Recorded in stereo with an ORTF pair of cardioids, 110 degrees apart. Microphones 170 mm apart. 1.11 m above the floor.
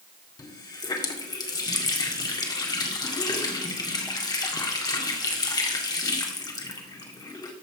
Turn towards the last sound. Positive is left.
turn(degrees=25)